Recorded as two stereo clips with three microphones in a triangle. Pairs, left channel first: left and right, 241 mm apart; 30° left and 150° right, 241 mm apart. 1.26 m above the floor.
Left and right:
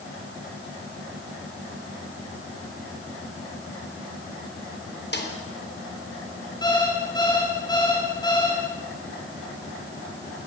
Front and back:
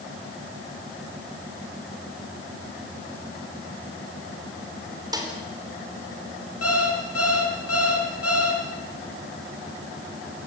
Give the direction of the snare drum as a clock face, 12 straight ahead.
7 o'clock.